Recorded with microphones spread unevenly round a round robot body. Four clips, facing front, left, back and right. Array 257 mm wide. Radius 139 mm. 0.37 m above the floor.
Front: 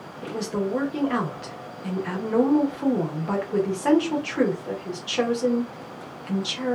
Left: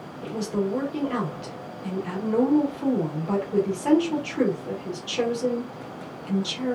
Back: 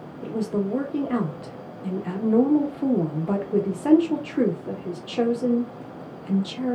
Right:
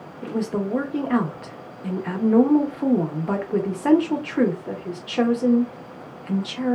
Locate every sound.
0.2 s a woman speaking: 95° right, 0.8 m